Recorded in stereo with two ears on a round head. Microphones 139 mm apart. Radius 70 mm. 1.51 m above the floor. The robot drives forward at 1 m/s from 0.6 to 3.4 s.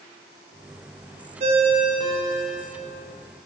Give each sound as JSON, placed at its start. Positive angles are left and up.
{"t": 1.4, "sound": "a ringtone", "side_deg": -40, "distance_m": 0.9}